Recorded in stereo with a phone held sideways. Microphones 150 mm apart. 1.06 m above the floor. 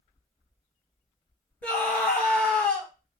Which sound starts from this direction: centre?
A scream, at 1.6 s.